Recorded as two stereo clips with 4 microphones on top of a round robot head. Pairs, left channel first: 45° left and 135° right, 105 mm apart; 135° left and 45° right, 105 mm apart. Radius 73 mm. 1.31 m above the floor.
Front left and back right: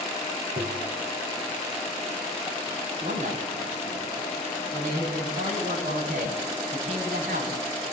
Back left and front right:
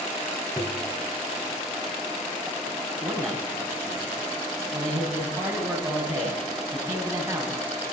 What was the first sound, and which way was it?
Tapping, 155° right.